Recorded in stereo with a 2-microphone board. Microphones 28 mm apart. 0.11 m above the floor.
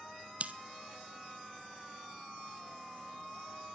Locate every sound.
0.4 s scissors: 45° right (ahead or behind), 1.1 m